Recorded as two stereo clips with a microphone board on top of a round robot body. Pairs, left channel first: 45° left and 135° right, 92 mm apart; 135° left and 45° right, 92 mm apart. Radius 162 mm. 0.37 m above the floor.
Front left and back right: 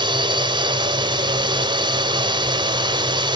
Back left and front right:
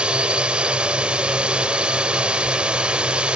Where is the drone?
120° right.